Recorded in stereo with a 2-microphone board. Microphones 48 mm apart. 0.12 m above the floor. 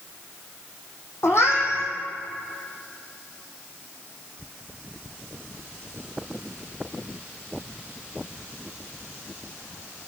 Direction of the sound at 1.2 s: 60° left (ahead or behind).